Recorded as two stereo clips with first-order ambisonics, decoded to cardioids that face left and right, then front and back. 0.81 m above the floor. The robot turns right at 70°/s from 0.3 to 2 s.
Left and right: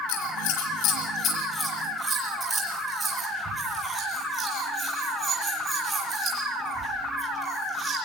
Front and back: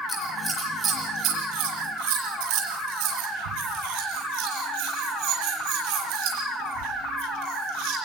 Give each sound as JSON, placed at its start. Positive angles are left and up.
{"t": 0.1, "sound": "scissors", "azimuth_deg": 75, "distance_m": 7.0}